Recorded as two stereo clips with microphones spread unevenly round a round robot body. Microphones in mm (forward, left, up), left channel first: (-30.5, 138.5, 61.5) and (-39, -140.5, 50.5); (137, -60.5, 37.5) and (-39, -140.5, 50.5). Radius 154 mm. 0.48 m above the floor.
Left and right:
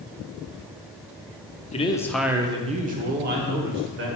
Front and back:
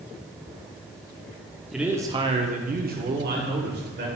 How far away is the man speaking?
About 0.7 m.